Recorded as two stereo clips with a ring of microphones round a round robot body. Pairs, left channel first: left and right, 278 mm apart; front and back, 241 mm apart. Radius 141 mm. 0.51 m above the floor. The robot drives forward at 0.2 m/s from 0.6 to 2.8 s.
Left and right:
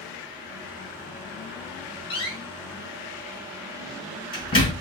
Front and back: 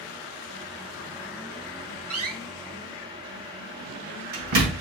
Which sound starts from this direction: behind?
A door slam, at 2.1 s.